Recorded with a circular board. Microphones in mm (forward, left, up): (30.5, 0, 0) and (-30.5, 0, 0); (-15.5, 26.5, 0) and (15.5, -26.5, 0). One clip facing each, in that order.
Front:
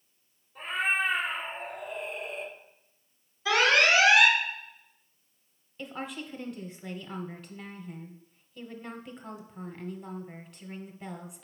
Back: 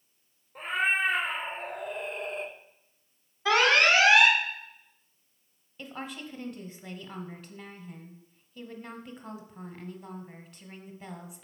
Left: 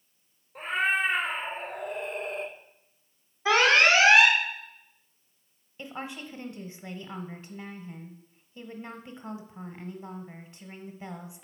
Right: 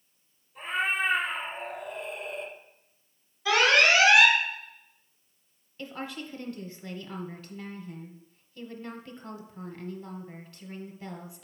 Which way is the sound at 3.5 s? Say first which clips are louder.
Back 1 dB, left 1 dB; 165° left.